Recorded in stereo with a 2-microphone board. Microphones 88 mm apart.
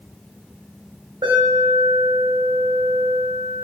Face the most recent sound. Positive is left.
turn(degrees=-75)  # may be behind; listen again after turning